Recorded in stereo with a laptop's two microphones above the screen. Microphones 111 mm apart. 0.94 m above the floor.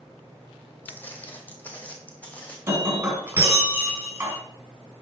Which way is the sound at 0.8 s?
15° left (ahead or behind).